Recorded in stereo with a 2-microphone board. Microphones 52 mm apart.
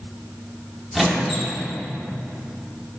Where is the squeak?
Centre (ahead or behind), 1.7 m.